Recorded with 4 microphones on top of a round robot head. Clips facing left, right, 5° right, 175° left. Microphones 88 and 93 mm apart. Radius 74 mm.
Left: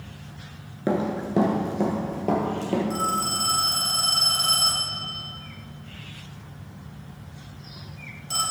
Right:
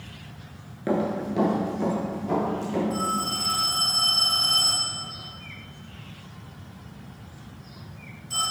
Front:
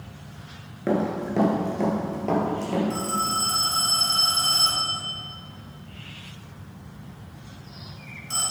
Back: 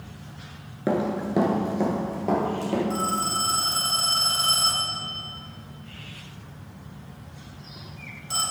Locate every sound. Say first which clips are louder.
0.9 s running footsteps: even, even; 115° left, 1.7 m; by 2.8 s 95° left, 3 m
2.9 s a phone ringing: left 1 dB, even; 100° left, 4 m